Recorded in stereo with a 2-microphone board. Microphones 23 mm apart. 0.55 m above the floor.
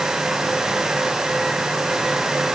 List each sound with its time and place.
Only background noise.